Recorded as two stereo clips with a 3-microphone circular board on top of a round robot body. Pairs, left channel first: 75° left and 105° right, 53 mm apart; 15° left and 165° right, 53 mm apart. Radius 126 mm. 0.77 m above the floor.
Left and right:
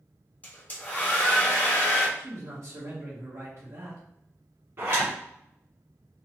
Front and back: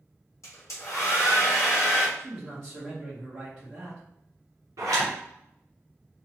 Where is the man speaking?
100° right, 1.1 m.